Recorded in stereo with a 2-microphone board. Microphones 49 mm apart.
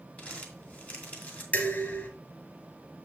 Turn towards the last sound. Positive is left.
turn(degrees=40)  # may be behind; listen again after turning